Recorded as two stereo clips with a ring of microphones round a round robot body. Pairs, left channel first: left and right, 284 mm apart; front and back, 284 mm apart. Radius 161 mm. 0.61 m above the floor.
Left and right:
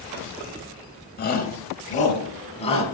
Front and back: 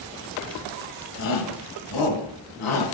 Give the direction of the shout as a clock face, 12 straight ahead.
11 o'clock.